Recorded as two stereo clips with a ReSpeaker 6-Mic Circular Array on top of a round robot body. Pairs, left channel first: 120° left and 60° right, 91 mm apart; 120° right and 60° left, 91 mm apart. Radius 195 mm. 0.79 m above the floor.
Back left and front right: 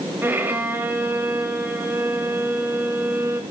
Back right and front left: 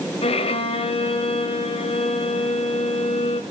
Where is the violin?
130° right, 0.8 m.